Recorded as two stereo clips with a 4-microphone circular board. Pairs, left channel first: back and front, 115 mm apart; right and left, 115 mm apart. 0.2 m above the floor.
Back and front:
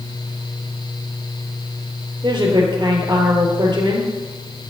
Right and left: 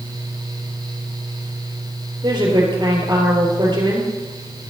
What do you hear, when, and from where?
2.2 s a woman speaking: 45° left, 3.5 m